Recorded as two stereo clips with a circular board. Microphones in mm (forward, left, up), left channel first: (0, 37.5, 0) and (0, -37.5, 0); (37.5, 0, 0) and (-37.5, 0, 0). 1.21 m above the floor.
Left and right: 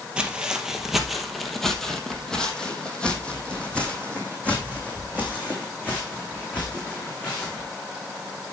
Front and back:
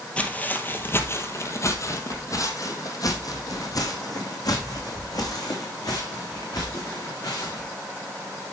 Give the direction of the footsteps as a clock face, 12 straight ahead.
1 o'clock.